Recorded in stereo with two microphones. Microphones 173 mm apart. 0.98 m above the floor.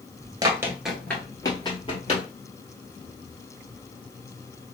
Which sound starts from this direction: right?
Running footsteps, at 0.4 s.